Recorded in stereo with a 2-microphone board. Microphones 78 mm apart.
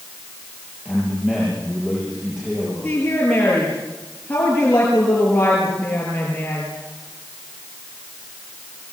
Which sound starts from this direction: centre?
A man speaking, at 0.8 s.